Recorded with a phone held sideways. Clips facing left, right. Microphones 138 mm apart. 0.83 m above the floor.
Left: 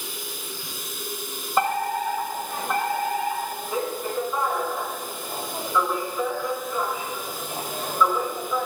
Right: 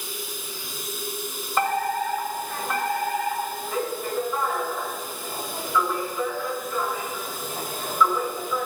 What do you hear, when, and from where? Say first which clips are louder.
0.0 s running water: right 1 dB; 55° left (ahead or behind), 4 m
1.6 s a fire alarm: even; 15° left (ahead or behind), 1.3 m